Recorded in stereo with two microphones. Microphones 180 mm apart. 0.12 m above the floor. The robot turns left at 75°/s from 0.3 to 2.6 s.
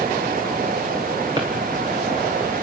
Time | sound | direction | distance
1.4 | a drawer | 25° right (ahead or behind) | 5.5 m